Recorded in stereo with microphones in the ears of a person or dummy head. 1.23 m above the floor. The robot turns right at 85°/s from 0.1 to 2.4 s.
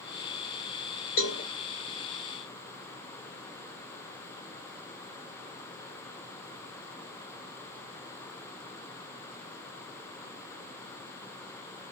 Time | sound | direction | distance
1.2 | a cowbell | 55° left (ahead or behind) | 1.1 m